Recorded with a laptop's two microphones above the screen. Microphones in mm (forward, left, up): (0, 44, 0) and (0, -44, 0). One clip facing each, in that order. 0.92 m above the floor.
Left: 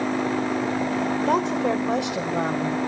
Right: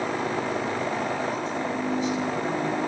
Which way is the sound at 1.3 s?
80° left.